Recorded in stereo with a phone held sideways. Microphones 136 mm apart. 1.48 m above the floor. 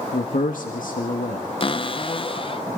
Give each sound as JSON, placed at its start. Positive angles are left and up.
{"t": 0.1, "sound": "a man speaking", "side_deg": 80, "distance_m": 1.8}
{"t": 1.6, "sound": "a cupboard door", "side_deg": 40, "distance_m": 0.7}